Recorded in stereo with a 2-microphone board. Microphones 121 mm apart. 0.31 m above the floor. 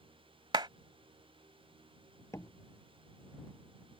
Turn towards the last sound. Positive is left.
turn(degrees=25)  # may be behind; listen again after turning